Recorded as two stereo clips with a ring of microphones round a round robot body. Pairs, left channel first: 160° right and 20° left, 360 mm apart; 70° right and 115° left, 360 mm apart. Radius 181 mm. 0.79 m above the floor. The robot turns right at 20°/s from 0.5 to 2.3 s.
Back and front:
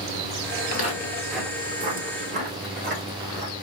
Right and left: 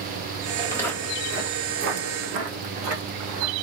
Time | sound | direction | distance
0.6 | footsteps | 140° right | 0.8 m